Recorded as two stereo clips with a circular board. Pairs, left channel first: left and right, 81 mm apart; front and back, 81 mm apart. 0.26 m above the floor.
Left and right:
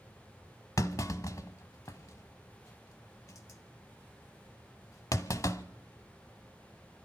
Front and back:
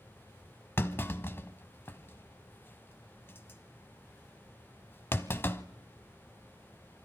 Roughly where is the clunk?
Ahead left.